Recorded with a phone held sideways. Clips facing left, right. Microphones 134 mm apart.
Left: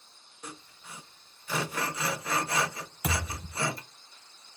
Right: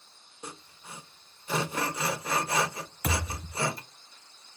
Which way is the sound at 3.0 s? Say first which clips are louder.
Right 1 dB; 10° left (ahead or behind).